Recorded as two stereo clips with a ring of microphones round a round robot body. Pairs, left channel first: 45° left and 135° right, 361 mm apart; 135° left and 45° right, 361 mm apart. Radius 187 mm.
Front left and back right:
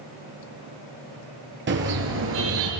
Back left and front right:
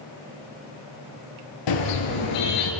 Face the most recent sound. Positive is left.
turn(degrees=175)